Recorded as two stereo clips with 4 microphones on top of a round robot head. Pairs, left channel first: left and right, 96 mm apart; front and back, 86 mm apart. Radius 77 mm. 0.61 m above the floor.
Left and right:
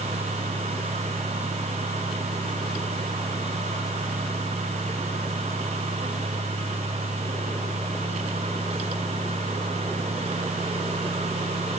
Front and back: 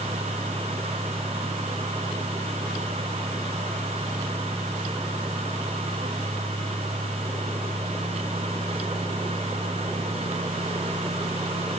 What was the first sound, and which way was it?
Only background noise.